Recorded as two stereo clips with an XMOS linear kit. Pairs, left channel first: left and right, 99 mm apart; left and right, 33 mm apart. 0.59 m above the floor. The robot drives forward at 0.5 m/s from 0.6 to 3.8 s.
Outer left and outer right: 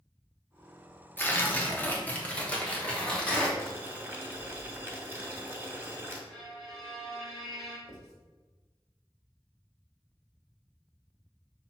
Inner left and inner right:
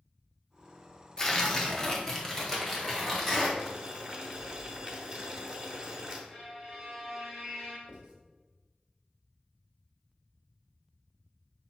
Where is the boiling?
25° right (ahead or behind), 0.8 m; by 6.2 s 20° right (ahead or behind), 0.8 m.